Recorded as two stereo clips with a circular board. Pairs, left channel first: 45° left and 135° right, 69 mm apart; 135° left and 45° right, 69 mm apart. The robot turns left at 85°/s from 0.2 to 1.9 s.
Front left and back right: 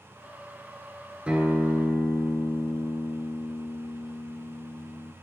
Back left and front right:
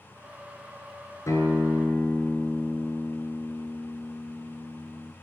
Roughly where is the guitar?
Behind left.